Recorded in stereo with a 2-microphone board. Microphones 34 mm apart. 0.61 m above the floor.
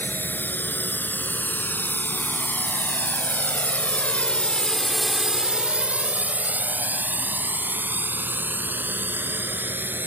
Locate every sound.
0.0 s a drone: 75° left (ahead or behind); by 10.1 s 80° right